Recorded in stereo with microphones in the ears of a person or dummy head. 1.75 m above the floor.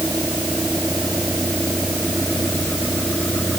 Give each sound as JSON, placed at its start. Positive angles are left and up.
{"t": 0.0, "sound": "a vehicle", "side_deg": -5}